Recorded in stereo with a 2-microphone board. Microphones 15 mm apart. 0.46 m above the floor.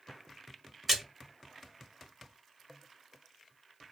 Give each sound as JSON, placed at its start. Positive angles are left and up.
{"t": 0.9, "sound": "a splash", "side_deg": -10, "distance_m": 1.2}